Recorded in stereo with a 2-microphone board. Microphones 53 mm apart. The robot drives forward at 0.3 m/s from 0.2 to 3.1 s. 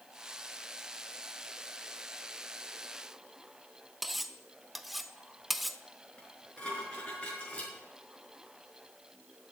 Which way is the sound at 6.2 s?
25° left (ahead or behind).